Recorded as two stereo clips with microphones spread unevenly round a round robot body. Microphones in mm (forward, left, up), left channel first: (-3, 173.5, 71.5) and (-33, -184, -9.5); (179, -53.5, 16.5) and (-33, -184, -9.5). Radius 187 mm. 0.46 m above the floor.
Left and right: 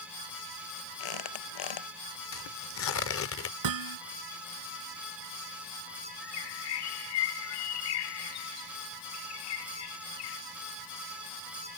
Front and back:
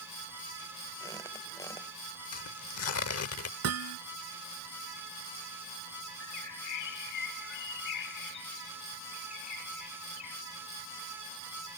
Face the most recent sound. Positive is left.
turn(degrees=55)